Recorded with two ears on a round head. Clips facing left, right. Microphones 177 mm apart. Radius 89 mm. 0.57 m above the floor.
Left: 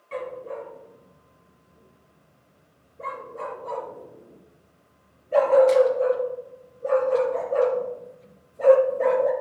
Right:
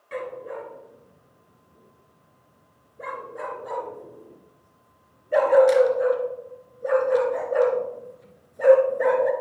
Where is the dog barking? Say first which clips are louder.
Even; 15° right (ahead or behind), 1.9 m.